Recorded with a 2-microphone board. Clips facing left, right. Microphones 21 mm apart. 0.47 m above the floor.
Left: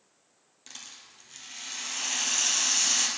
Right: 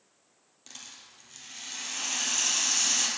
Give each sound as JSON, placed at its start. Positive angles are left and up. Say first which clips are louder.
{"t": 0.7, "sound": "a rattle", "louder": "left 1 dB", "side_deg": 15, "distance_m": 1.7}